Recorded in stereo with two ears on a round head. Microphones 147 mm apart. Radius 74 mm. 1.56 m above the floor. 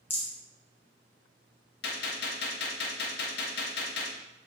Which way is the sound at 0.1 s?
15° left (ahead or behind).